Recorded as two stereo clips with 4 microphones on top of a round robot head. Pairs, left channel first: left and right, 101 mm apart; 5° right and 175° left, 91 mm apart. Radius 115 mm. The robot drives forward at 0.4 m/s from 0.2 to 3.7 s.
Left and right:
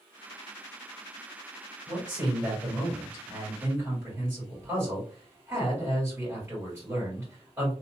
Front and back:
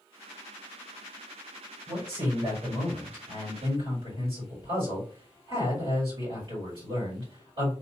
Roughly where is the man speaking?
Behind right.